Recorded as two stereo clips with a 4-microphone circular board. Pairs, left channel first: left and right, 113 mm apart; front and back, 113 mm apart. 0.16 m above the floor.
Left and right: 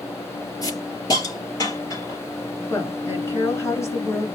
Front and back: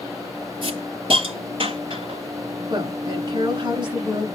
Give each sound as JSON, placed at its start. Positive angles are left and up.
{"t": 0.6, "sound": "a hiss", "azimuth_deg": 145, "distance_m": 4.5}
{"t": 2.7, "sound": "a woman speaking", "azimuth_deg": 150, "distance_m": 2.0}